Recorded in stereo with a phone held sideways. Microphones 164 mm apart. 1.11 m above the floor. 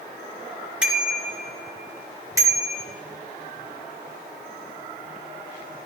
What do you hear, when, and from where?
0.8 s a bicycle bell: 5° right (ahead or behind), 3 m; by 2.9 s 25° right (ahead or behind), 2 m